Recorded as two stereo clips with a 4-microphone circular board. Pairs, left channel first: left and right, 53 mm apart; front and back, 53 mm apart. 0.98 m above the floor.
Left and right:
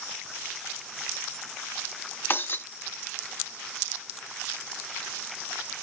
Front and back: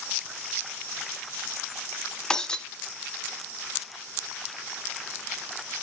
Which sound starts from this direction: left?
Breaking glass, at 2.3 s.